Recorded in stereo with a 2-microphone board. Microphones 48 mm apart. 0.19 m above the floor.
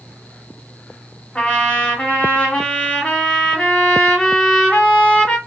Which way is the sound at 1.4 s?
20° left (ahead or behind).